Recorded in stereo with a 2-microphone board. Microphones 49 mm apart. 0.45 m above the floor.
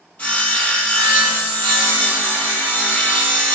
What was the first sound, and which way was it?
Sawing, 35° left (ahead or behind).